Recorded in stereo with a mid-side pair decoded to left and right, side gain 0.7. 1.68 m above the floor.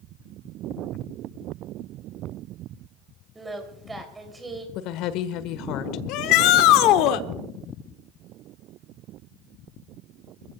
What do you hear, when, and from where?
3.4 s singing: 15° right, 3 m
4.8 s a woman speaking: 60° left, 1.4 m
6.1 s a shout: 65° left, 1.0 m